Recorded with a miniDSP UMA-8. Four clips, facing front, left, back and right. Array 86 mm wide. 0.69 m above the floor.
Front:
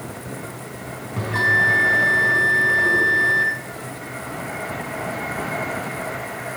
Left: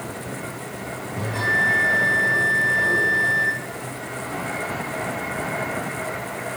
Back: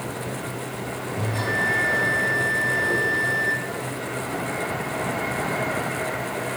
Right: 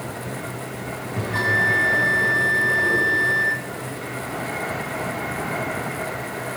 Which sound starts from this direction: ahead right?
A bell, at 1.2 s.